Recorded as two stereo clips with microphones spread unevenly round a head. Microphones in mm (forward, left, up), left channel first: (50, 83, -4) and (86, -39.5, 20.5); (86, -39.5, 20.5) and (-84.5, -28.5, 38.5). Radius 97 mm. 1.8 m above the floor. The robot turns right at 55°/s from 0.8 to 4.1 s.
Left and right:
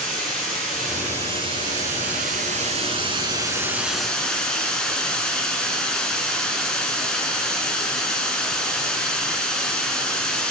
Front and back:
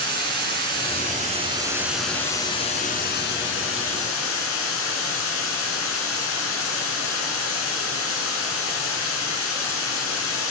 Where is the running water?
165° right, 4.5 m; by 10.5 s 20° left, 4.5 m.